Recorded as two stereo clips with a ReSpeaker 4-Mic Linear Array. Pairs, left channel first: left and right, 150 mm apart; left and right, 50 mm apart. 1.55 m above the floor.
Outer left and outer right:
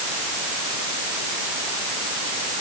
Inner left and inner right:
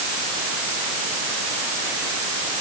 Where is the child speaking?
I don't hear a child speaking.